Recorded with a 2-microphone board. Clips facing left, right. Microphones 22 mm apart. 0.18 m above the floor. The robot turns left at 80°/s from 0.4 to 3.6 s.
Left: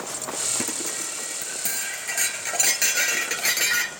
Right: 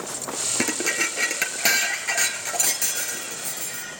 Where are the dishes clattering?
35° right, 2.5 m; by 3.9 s 85° left, 2.5 m.